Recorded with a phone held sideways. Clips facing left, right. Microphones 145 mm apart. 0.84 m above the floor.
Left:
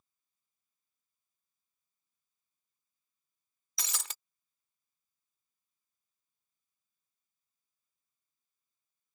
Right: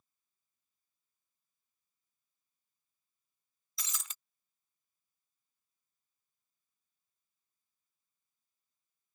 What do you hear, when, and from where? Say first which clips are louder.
3.8 s breaking glass: left 4 dB; 65° left (ahead or behind)